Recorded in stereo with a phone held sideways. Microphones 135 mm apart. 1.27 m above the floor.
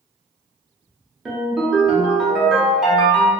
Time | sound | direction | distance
1.2 | a ringtone | 5° right (ahead or behind) | 0.9 m